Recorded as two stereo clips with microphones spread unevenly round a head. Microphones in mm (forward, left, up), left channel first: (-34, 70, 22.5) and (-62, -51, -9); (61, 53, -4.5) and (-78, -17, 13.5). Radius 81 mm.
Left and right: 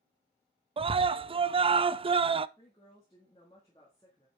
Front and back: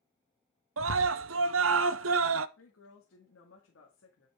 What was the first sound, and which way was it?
A scream, 155° right.